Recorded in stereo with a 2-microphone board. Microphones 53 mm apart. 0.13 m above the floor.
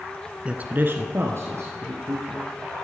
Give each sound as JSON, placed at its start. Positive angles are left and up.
{"t": 0.5, "sound": "a man speaking", "side_deg": -20, "distance_m": 1.0}